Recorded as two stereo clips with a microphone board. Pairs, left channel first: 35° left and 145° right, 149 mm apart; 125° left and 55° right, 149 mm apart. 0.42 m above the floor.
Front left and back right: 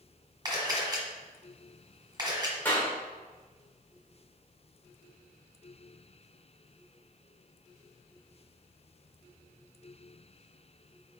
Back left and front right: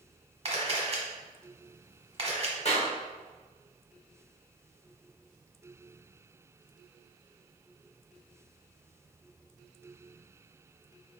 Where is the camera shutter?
95° right, 1.3 m.